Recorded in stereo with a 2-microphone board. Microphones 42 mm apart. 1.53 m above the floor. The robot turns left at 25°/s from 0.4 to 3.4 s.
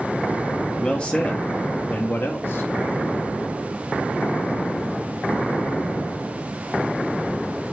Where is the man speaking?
160° left, 0.6 m; by 2.7 s 110° left, 0.6 m.